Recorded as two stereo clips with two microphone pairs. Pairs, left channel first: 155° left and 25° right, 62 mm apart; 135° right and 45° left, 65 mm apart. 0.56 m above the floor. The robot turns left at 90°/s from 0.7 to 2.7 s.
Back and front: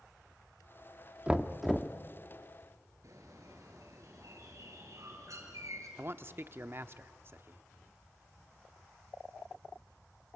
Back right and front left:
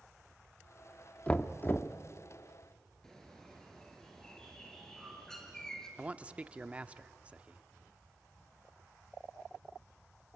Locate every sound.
1.3 s knocking: 80° right, 0.8 m; by 1.9 s 140° right, 0.8 m
3.0 s a bird: 50° right, 3.5 m
6.0 s a man speaking: 10° right, 0.8 m